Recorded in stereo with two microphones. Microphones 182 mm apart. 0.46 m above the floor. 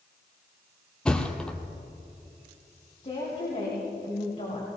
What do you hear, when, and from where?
1.1 s a thud: 5° left (ahead or behind), 1.3 m
3.0 s a woman speaking: 40° left (ahead or behind), 2.5 m